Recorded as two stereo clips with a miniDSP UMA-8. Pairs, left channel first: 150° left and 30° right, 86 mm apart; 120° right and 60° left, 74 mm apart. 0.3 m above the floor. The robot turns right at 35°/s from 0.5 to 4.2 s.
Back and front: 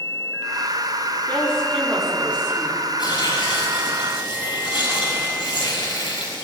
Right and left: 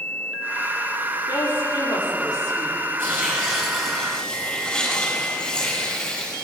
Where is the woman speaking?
145° right, 6.5 m; by 2.8 s 90° right, 6.5 m.